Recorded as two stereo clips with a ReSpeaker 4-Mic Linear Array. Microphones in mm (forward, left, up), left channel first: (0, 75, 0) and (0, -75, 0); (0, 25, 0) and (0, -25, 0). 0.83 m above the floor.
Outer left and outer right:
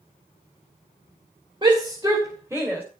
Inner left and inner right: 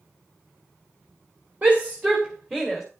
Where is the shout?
30° right (ahead or behind), 2.5 m; by 2.8 s 10° right (ahead or behind), 3 m.